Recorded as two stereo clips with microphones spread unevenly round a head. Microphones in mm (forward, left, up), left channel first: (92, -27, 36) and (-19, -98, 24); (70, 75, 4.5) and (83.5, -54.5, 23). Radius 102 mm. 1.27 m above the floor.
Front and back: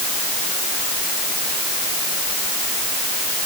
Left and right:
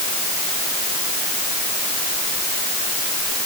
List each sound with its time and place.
Only background noise.